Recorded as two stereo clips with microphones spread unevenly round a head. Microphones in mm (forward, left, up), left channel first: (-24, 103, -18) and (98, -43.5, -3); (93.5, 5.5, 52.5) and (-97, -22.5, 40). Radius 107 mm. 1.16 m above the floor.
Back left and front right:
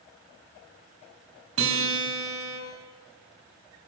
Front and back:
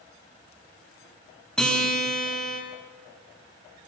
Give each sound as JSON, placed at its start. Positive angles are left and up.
{"t": 1.6, "sound": "a guitar", "azimuth_deg": -80, "distance_m": 6.5}